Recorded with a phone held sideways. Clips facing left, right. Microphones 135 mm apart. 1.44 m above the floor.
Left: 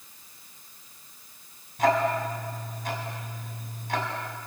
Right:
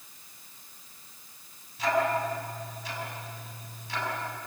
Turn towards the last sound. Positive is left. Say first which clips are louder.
# left 3 dB
turn(degrees=55)  # may be behind; listen again after turning